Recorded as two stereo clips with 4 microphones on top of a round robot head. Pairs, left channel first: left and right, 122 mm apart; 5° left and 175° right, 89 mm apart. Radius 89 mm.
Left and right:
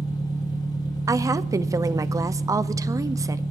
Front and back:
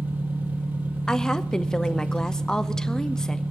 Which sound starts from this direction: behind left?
An engine running, at 0.0 s.